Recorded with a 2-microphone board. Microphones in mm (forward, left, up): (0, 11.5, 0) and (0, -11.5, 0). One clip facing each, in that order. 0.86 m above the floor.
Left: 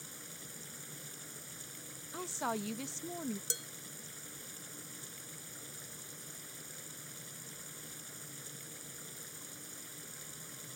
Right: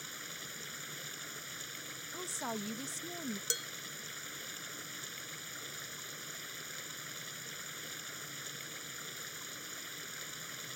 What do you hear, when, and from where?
0.0 s running water: 35° right (ahead or behind)
2.1 s a woman speaking: 20° left (ahead or behind)
3.5 s dishes clattering: 25° right (ahead or behind)